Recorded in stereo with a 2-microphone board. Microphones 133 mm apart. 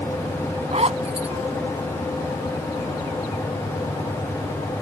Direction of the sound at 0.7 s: 55° right (ahead or behind).